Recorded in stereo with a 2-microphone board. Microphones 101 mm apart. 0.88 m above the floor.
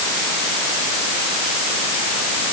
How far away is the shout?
I don't hear a shout.